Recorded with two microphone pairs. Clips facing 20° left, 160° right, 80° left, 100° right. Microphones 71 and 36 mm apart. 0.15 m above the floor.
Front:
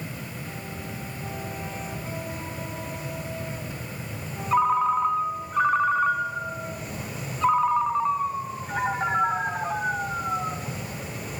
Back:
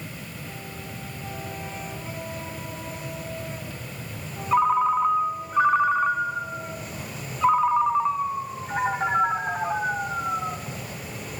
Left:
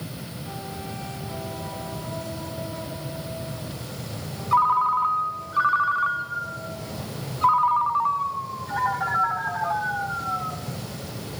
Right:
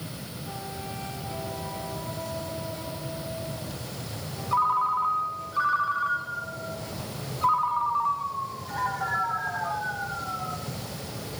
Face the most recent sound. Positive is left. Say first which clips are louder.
# back 1 dB, left 4 dB
turn(degrees=115)